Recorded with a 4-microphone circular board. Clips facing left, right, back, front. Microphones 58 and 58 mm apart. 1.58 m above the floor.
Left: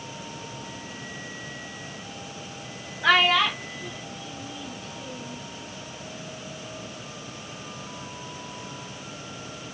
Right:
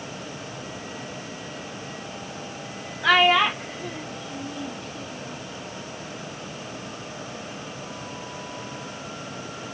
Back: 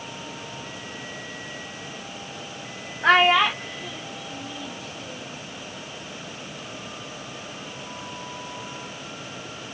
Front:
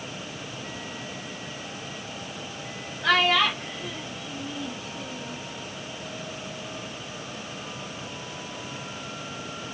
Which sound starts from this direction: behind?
A child speaking, at 3.0 s.